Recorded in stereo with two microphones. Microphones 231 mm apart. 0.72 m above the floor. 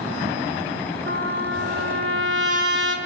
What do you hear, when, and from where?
1.1 s a trumpet: 75° right (ahead or behind), 6 m